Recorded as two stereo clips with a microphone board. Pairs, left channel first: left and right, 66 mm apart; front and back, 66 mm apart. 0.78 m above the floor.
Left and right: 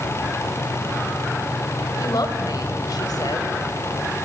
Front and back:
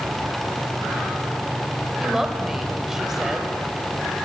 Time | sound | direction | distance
2.0 | a woman speaking | 95° left | 3 m